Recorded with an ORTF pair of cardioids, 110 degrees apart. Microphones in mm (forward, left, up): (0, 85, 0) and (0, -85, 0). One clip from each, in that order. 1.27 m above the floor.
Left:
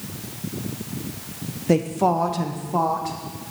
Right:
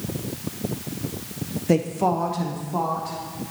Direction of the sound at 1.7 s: 5° left.